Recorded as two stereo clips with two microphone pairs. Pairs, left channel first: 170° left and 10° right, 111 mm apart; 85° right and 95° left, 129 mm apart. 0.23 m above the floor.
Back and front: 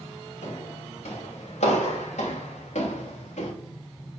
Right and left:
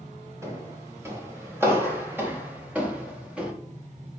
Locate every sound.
0.4 s footsteps: 160° left, 4 m; by 3.5 s 175° left, 2.5 m